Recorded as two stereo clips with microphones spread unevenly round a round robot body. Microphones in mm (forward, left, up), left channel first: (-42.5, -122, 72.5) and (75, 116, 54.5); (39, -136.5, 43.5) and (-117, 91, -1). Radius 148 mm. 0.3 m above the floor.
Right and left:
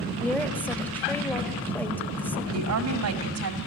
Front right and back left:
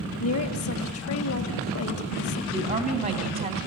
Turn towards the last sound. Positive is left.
turn(degrees=60)